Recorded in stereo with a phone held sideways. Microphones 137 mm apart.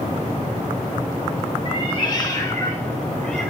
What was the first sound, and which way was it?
A cat meowing, 40° left (ahead or behind).